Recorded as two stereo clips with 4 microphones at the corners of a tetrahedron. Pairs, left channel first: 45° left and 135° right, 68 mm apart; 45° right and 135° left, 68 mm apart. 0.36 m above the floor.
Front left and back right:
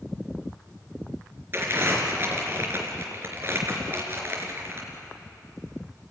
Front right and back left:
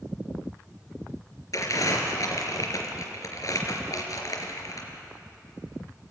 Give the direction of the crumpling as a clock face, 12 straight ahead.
3 o'clock.